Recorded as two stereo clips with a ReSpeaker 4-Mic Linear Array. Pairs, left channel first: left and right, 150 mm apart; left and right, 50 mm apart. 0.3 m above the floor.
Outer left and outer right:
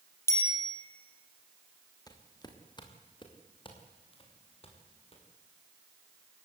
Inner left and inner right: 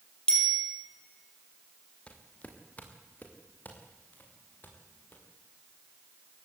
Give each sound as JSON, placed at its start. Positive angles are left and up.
{"t": 0.3, "sound": "a bicycle bell", "side_deg": 20, "distance_m": 6.0}
{"t": 2.1, "sound": "footsteps", "side_deg": 25, "distance_m": 4.0}